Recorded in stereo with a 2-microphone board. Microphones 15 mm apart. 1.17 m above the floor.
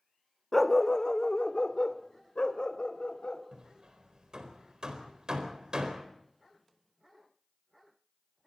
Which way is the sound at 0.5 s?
15° left (ahead or behind).